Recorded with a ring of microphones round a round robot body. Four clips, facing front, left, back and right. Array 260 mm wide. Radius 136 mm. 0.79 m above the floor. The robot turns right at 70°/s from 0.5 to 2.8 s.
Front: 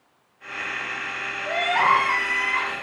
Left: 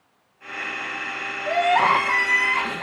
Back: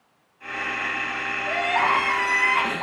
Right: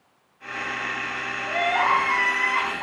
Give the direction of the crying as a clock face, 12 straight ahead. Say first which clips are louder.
Left 4 dB, front 2 dB; 10 o'clock.